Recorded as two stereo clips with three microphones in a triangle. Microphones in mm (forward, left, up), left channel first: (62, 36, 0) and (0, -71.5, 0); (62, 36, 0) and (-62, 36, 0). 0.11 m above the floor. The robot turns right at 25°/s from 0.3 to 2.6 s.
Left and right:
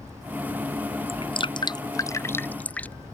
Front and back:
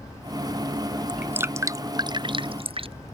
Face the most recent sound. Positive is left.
turn(degrees=140)